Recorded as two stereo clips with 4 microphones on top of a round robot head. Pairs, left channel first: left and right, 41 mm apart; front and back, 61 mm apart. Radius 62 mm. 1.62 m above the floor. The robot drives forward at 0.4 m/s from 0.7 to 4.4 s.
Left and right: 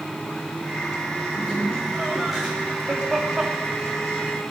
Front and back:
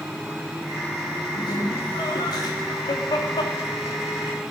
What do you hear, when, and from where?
1.3 s laughter: 10° right, 4 m; by 4.3 s 15° right, 2.5 m